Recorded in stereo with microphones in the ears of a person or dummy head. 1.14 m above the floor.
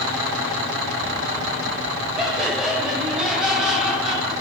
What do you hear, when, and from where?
2.2 s laughter: 5° right (ahead or behind), 7.5 m